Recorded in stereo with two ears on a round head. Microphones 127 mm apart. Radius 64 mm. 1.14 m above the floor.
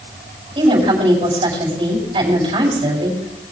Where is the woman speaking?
35° right (ahead or behind), 7.5 m.